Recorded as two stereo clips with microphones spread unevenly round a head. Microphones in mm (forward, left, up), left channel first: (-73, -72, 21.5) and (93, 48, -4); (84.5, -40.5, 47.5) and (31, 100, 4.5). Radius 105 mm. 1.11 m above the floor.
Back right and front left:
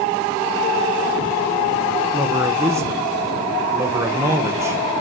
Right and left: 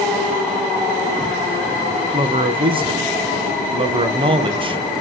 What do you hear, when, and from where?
2.1 s a man speaking: 105° left, 1.0 m